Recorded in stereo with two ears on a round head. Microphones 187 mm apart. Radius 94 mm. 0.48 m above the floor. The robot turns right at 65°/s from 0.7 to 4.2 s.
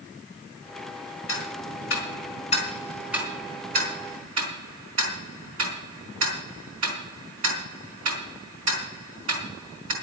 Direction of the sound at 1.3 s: 65° left (ahead or behind).